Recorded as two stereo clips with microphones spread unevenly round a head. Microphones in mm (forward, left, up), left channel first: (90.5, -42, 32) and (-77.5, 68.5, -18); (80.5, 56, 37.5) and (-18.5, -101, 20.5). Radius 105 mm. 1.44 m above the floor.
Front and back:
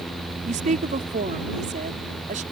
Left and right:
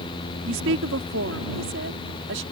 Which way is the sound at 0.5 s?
155° right.